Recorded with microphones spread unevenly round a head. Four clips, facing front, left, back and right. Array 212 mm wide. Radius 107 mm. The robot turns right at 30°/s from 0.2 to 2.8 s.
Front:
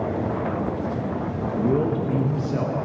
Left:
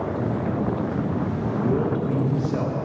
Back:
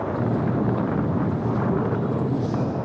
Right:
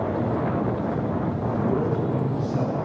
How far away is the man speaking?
About 1.5 m.